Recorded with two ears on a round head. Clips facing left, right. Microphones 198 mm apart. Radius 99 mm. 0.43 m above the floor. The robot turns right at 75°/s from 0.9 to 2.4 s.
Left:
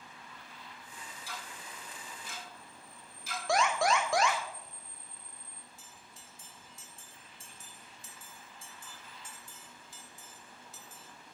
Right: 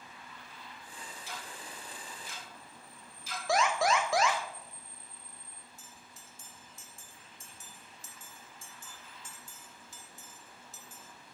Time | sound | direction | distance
1.3 | ticking | 20° right (ahead or behind) | 2 m
3.5 | an alarm | centre (ahead or behind) | 1.3 m
5.8 | a bell | 40° right (ahead or behind) | 0.9 m